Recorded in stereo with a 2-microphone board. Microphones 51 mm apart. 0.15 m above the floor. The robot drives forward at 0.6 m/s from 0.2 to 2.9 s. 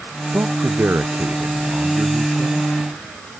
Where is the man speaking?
50° right (ahead or behind); by 2.7 s 55° right (ahead or behind).